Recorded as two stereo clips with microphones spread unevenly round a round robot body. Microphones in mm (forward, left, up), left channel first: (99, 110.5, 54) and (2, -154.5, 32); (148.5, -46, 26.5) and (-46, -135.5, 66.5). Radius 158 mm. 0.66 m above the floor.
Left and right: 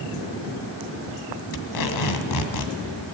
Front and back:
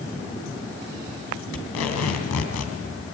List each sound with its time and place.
1.5 s tape being pulled: 60° left, 2.5 m